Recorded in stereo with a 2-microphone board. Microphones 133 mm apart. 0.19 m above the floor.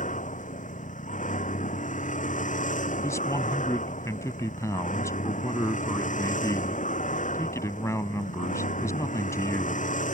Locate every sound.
0.0 s a vehicle: 75° left (ahead or behind)
3.0 s a man speaking: 25° left (ahead or behind)